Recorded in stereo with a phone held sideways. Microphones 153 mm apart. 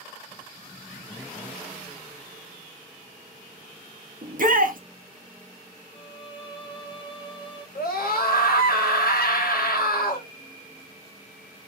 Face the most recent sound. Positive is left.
turn(degrees=80)